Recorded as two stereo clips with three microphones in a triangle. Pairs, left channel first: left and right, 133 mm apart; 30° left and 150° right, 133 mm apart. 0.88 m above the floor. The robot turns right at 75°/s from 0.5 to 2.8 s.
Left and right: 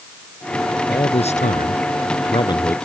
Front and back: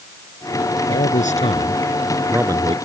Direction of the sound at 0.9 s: 25° left.